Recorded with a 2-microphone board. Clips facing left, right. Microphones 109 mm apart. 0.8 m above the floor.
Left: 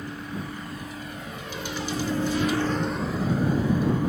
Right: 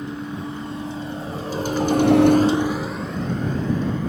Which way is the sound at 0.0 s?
25° right (ahead or behind).